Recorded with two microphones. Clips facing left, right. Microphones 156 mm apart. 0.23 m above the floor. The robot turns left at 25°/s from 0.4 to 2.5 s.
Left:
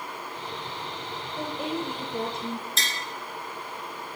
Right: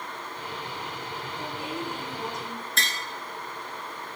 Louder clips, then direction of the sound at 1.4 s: Left 5 dB; 60° left (ahead or behind).